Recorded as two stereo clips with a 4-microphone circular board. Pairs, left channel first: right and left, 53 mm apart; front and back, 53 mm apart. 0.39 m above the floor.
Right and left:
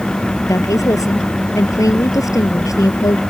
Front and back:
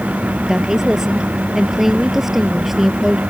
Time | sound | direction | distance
0.5 | a woman speaking | 105° right | ?